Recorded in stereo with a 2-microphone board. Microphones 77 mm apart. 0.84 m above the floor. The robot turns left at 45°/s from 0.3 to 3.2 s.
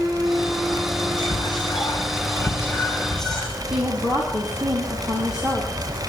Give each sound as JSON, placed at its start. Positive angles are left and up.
{"t": 1.2, "sound": "whispering", "azimuth_deg": 100, "distance_m": 3.0}
{"t": 3.7, "sound": "a woman speaking", "side_deg": -10, "distance_m": 5.0}